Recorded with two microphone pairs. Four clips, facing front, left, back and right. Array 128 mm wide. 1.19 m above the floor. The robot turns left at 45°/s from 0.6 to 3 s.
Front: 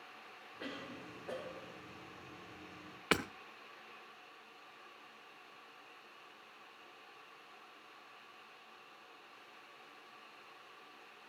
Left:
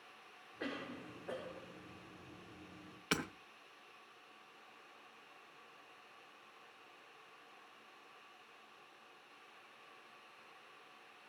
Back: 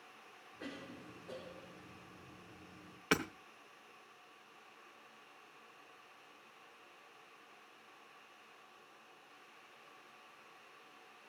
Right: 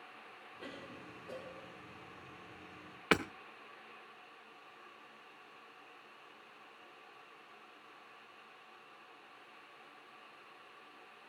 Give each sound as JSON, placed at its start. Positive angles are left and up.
{"t": 0.6, "sound": "a cough", "azimuth_deg": 75, "distance_m": 1.5}
{"t": 3.1, "sound": "hammering", "azimuth_deg": -70, "distance_m": 1.1}